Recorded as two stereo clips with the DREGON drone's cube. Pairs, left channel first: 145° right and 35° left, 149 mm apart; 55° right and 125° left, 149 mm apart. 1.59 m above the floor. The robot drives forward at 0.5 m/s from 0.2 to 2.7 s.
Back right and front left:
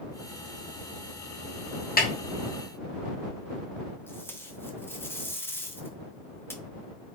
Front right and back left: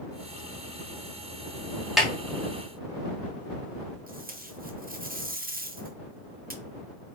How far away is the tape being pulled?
About 0.8 m.